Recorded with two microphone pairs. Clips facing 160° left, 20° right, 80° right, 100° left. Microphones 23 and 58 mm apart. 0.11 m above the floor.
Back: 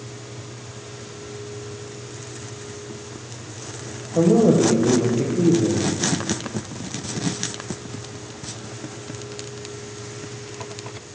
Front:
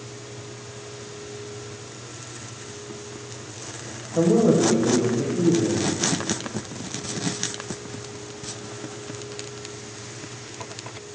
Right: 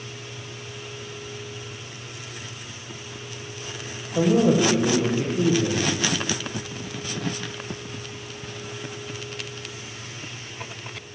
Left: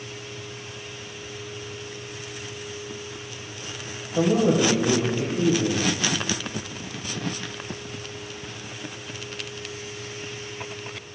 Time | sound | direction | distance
4.2 | a man speaking | 160° right | 2.5 m